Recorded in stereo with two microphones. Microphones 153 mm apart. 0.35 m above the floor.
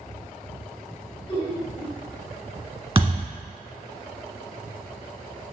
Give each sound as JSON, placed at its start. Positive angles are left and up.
{"t": 1.3, "sound": "laughter", "side_deg": 35, "distance_m": 1.6}
{"t": 3.0, "sound": "a thud", "side_deg": -35, "distance_m": 1.4}